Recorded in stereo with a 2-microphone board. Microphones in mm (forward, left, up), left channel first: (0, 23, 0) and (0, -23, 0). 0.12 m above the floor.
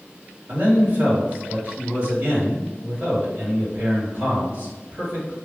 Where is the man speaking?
40° right (ahead or behind), 2.0 m.